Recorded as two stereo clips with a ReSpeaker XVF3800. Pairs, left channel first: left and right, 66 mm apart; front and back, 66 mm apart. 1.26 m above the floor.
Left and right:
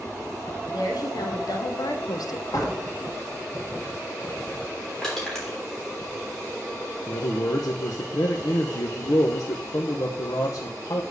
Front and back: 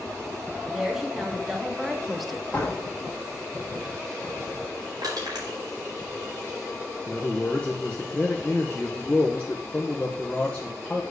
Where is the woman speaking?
95° left, 2 m; by 2.4 s 90° left, 0.8 m.